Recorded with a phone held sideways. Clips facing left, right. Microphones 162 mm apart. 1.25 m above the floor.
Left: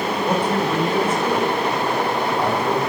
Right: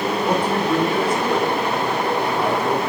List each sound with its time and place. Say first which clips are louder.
0.2 s a man speaking: even; 10° right (ahead or behind), 5 m